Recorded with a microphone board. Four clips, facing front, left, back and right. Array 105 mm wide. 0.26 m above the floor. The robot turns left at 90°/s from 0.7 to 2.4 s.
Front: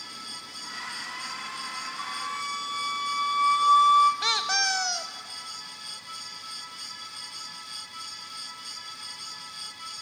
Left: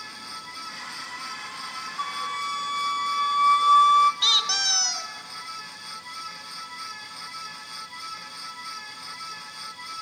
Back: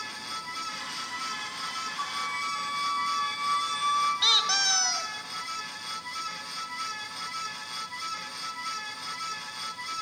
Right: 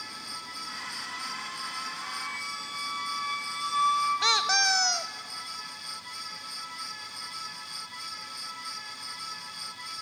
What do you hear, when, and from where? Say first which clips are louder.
2.0 s a flute: left 8 dB, back 1 dB; 105° left, 1.5 m; by 4.1 s 70° left, 1.5 m
4.2 s a squeak: right 3 dB, front 1 dB; 65° right, 0.8 m